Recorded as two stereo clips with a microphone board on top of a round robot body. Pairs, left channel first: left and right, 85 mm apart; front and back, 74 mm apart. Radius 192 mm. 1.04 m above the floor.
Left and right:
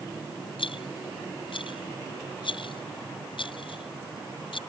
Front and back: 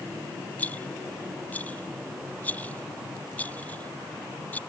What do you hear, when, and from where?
0.6 s a rattle: 70° left